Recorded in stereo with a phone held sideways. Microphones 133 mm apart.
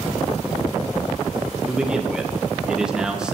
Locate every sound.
1.7 s a man speaking: 5° right (ahead or behind), 1.6 m